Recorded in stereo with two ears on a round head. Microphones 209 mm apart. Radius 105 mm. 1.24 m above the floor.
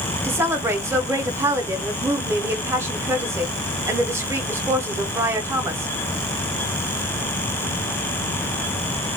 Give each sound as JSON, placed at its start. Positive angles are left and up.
{"t": 0.2, "sound": "a woman speaking", "side_deg": -10, "distance_m": 0.6}